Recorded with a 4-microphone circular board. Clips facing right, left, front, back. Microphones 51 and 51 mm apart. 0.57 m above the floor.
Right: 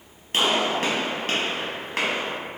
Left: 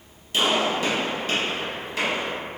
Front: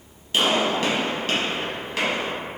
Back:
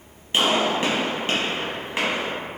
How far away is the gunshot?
About 1.0 m.